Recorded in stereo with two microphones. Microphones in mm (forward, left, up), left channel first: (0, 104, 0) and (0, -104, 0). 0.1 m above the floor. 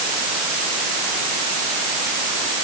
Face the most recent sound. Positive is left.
No sound to turn to.